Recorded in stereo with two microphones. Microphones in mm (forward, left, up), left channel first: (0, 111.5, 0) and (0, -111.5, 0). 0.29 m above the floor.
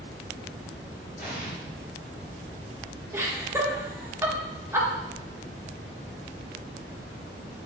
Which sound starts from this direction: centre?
Laughter, at 3.1 s.